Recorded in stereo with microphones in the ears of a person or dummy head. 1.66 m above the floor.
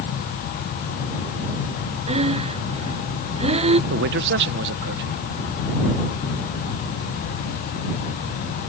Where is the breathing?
30° right (ahead or behind).